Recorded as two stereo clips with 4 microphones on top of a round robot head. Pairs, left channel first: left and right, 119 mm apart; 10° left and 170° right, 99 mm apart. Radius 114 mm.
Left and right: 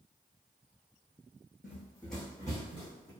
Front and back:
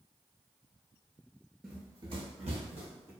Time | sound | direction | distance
1.6 | running footsteps | 100° left | 0.6 m